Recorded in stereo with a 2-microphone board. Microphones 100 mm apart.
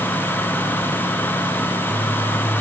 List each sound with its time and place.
Only background noise.